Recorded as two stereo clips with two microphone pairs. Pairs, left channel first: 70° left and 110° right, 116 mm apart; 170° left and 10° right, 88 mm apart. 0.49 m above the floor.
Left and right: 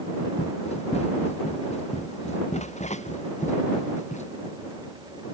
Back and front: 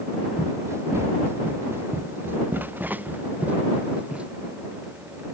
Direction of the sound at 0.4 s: 45° left.